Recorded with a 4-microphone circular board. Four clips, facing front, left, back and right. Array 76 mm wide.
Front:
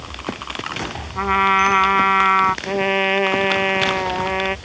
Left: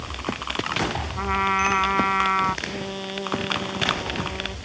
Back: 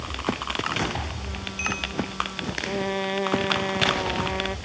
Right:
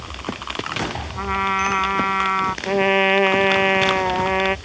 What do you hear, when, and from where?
1.1 s a trumpet: 5° right
2.6 s a trumpet: 60° right